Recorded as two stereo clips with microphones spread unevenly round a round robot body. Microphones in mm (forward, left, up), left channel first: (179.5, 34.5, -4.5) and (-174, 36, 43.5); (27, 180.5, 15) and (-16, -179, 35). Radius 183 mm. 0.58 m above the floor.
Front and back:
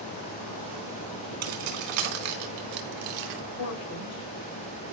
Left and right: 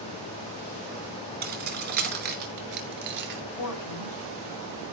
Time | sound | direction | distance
1.4 | keys jangling | 165° right | 4.5 m
3.5 | a man speaking | 45° left | 4.5 m